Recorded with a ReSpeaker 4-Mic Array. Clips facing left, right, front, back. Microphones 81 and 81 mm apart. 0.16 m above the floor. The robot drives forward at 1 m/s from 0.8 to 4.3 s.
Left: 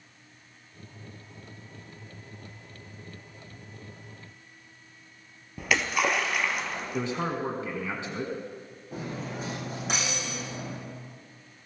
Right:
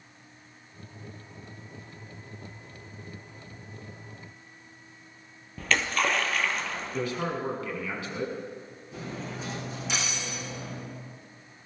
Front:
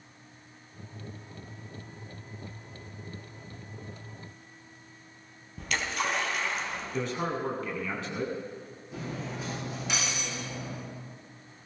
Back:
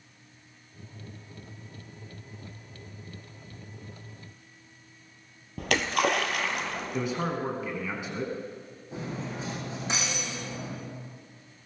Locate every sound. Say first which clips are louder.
5.6 s a splash: left 1 dB, back 6 dB; 170° left, 1.2 m
6.9 s a man speaking: left 1 dB, back 1 dB; 115° left, 1.8 m
8.9 s cutlery clinking: left 2 dB, back 2 dB; 125° left, 6 m